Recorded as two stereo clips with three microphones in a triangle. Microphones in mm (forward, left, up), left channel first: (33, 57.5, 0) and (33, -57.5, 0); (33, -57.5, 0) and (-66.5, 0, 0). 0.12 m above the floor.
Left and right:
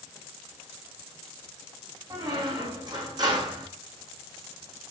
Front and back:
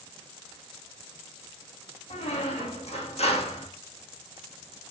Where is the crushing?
I don't hear crushing.